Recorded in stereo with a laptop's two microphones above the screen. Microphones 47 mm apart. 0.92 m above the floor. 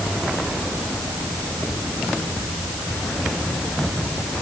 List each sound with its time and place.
Only background noise.